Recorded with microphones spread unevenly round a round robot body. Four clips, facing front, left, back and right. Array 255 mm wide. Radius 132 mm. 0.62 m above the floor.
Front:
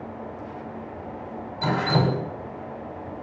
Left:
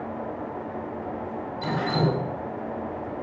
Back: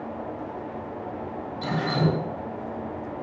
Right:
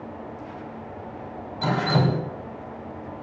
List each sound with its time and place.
1.6 s dripping: 55° right, 4.5 m